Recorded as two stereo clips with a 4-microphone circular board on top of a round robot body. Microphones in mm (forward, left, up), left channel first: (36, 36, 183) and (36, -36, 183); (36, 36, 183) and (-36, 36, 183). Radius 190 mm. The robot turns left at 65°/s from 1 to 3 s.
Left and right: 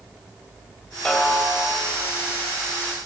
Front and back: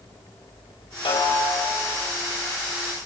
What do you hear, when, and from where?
1.1 s a snare drum: 5° left, 5 m; by 1.8 s 40° right, 5 m